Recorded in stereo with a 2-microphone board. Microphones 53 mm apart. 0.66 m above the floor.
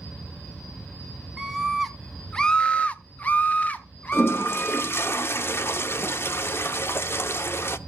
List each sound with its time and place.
1.4 s a scream: 10° right (ahead or behind), 0.9 m; by 5.1 s 25° left (ahead or behind), 1.6 m
4.1 s a toilet flushing: 45° left (ahead or behind), 0.6 m